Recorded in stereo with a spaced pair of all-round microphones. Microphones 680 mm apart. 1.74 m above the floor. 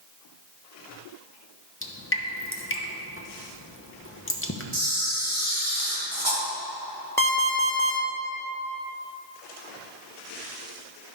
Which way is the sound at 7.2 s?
5° left (ahead or behind).